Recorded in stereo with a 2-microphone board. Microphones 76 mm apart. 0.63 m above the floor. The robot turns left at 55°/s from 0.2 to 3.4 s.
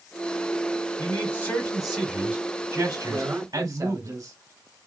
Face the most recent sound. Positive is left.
turn(degrees=-50)  # may be behind; listen again after turning